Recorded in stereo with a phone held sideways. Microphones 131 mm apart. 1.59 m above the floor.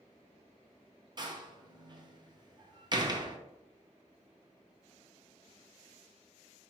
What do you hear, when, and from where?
1.2 s a door slam: 35° right (ahead or behind), 0.6 m